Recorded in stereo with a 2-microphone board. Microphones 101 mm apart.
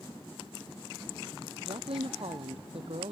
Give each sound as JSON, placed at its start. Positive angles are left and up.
{"t": 1.6, "sound": "a woman speaking", "side_deg": -70}